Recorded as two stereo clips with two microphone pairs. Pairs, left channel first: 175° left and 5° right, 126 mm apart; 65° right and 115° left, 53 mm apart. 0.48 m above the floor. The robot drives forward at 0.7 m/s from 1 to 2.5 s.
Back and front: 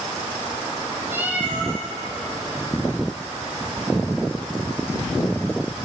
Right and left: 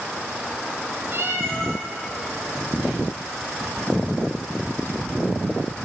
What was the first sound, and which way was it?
A cat meowing, 70° left.